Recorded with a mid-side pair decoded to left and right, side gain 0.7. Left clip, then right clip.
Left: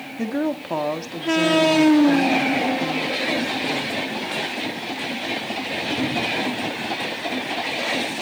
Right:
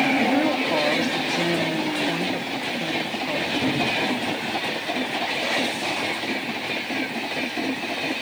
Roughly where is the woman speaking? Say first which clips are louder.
Right 5 dB; ahead.